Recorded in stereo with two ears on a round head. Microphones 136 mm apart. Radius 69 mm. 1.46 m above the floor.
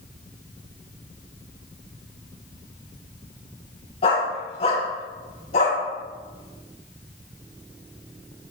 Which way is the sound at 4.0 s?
40° left (ahead or behind).